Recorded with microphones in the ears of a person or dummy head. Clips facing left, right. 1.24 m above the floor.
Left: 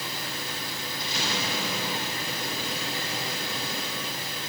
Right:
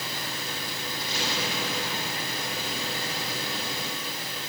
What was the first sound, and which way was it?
Only background noise.